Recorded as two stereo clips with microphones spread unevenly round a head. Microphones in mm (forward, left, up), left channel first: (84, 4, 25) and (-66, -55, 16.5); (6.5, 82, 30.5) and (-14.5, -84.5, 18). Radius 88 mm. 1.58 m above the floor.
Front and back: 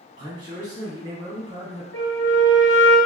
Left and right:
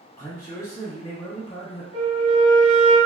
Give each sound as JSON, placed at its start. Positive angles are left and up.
{"t": 0.2, "sound": "a man speaking", "azimuth_deg": 155, "distance_m": 1.2}
{"t": 1.9, "sound": "a flute", "azimuth_deg": -40, "distance_m": 1.8}